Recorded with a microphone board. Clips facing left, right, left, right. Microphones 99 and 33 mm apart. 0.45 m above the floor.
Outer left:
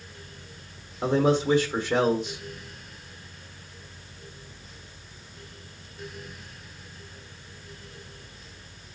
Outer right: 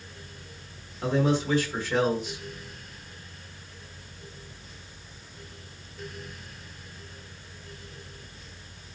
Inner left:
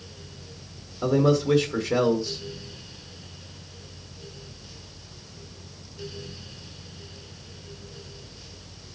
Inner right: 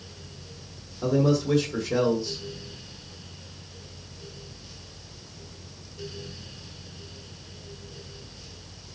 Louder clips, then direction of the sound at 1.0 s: Outer left 3 dB, inner left 2 dB; 25° left (ahead or behind).